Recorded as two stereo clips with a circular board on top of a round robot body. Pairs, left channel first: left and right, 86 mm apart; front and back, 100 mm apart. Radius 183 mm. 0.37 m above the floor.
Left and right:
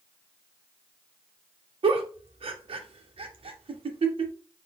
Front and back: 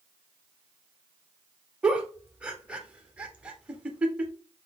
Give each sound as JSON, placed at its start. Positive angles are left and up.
{"t": 1.8, "sound": "a giggle", "azimuth_deg": -100, "distance_m": 0.6}